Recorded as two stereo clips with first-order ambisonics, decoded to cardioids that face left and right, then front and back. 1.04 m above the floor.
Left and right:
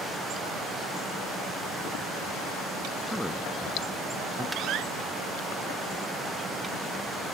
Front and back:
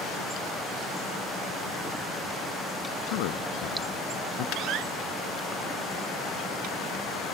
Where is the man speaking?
5° left.